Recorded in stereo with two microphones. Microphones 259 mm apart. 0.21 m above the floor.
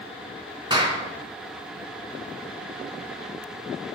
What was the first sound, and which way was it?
A clap, 15° right (ahead or behind).